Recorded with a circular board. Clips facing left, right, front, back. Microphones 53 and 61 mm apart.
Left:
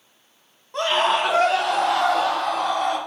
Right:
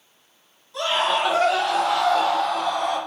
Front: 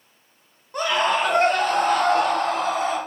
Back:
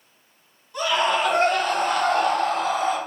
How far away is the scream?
About 2 m.